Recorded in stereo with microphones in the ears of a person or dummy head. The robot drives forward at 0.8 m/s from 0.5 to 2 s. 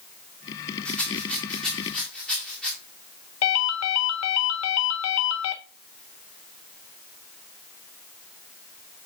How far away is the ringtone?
About 0.8 m.